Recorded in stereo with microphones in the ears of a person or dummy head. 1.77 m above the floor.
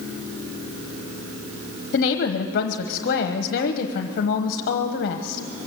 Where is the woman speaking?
55° left (ahead or behind), 1.1 m.